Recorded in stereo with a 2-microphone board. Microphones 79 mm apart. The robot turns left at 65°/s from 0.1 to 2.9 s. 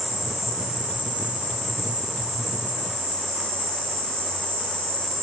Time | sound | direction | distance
0.0 | an insect | 150° left | 2.5 m